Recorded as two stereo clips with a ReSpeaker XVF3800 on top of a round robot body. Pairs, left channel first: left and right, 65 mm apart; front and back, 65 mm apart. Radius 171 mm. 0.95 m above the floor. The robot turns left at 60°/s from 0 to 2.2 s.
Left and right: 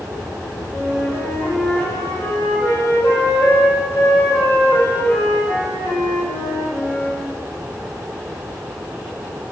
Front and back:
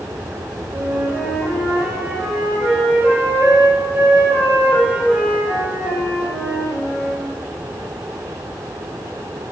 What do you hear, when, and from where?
0.7 s a flute: 160° right, 2 m; by 7.2 s 115° left, 2 m